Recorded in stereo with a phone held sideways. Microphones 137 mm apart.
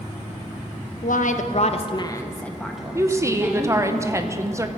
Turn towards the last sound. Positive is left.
turn(degrees=-20)  # may be behind; listen again after turning